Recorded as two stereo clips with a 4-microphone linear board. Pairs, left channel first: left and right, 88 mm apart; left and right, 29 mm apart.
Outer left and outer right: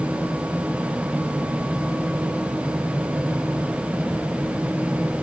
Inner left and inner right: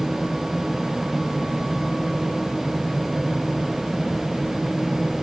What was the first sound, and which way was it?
Only background noise.